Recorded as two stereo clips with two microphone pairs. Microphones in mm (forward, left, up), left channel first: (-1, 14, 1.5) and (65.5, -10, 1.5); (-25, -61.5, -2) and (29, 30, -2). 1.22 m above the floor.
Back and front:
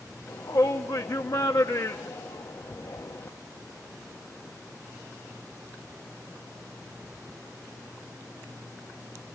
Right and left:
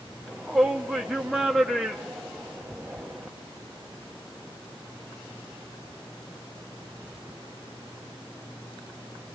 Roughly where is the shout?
Behind left.